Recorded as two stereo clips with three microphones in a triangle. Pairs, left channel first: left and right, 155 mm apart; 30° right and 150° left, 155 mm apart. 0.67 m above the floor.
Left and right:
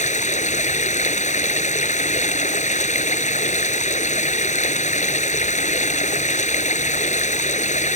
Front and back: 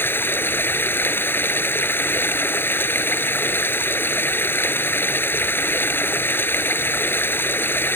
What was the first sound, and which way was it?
Running water, 45° left.